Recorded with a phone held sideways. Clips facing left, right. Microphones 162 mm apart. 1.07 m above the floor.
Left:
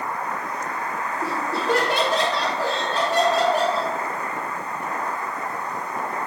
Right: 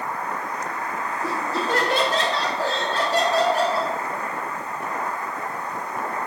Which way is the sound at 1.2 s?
70° left (ahead or behind).